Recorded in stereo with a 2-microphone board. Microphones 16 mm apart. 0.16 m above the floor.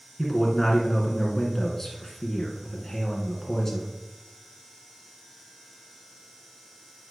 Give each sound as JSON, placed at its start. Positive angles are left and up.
{"t": 0.2, "sound": "a man speaking", "side_deg": 15, "distance_m": 2.0}